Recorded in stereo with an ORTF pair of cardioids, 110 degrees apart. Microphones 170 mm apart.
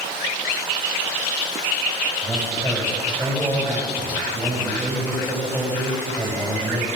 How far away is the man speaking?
About 9 m.